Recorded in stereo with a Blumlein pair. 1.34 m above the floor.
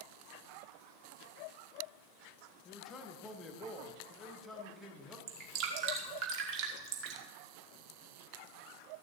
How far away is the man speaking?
About 1.8 m.